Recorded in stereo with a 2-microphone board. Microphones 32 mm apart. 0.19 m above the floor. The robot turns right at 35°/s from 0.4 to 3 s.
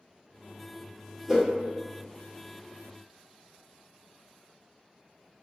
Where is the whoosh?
5° left (ahead or behind), 1.4 m; by 1.4 s centre (ahead or behind), 1.4 m.